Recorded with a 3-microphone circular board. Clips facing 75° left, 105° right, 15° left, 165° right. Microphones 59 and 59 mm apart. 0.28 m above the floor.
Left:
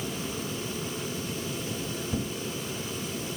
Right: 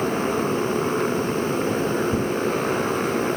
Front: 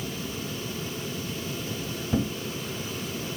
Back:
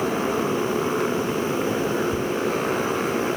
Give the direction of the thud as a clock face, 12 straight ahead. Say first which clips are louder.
Right 9 dB, back 3 dB; 1 o'clock.